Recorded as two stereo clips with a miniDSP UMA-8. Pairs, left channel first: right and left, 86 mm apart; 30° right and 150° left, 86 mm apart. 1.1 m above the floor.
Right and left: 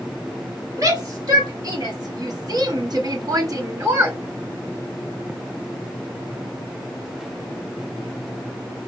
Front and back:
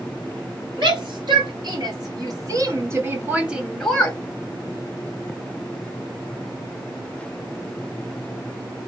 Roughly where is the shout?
Behind left.